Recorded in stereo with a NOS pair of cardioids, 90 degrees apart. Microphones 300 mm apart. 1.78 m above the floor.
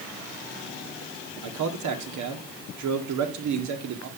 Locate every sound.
1.4 s a man speaking: 70° right, 1.7 m